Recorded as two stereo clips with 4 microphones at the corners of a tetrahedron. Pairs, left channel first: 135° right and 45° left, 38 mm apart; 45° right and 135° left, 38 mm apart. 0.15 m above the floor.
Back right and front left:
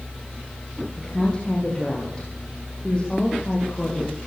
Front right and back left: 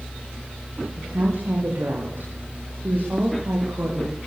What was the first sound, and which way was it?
A woman speaking, 160° left.